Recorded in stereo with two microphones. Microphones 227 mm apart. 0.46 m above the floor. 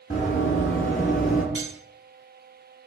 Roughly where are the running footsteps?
Left.